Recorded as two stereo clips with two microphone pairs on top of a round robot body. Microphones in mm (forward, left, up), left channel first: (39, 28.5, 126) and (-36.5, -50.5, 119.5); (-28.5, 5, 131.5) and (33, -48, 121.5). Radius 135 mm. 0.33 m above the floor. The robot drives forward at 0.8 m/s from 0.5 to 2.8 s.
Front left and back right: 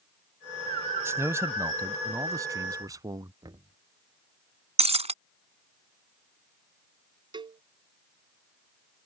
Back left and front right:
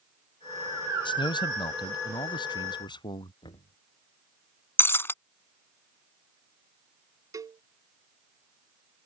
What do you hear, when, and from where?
1.1 s a man speaking: 160° left; by 3.3 s 170° left
3.4 s knocking: 170° left
4.8 s breaking glass: 155° right
7.3 s a cowbell: 85° right